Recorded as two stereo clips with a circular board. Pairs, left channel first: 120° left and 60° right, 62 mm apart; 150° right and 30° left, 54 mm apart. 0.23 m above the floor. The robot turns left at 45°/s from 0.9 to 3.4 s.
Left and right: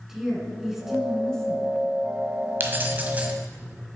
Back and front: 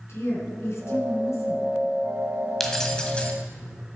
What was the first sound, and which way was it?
A woman speaking, 140° right.